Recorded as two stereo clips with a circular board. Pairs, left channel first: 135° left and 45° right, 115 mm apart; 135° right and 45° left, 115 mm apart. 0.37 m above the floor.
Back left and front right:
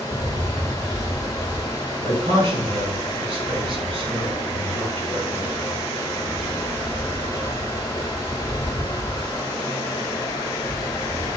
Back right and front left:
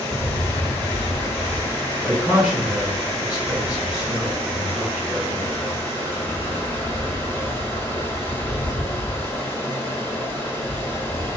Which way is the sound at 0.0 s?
165° left.